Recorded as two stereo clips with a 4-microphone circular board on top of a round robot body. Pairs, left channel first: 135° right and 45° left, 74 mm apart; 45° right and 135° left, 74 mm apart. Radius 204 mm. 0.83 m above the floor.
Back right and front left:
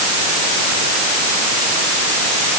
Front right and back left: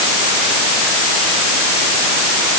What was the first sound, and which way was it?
Only background noise.